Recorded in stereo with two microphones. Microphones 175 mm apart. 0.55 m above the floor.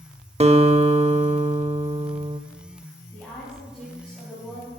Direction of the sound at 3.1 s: Centre (ahead or behind).